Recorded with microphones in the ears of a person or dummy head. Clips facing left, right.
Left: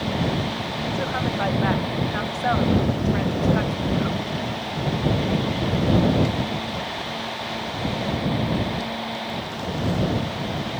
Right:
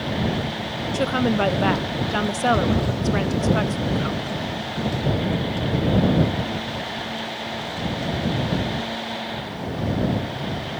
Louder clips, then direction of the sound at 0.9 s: Right 7 dB; 50° right (ahead or behind).